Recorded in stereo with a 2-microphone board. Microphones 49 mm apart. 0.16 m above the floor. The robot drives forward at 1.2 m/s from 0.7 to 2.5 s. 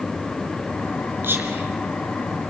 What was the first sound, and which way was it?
Whispering, 50° right (ahead or behind).